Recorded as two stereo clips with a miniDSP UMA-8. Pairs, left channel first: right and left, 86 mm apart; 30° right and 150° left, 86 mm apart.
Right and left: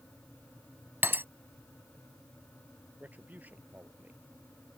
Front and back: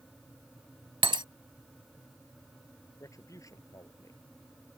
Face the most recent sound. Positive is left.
turn(degrees=20)